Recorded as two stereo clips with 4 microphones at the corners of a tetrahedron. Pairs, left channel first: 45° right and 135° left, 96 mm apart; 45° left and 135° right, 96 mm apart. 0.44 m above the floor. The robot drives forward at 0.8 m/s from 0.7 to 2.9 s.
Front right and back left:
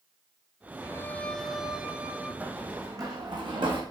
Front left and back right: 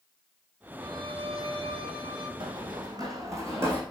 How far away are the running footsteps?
About 1.2 m.